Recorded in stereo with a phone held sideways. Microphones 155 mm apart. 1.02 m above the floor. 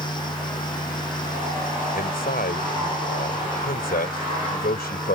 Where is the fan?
30° left (ahead or behind).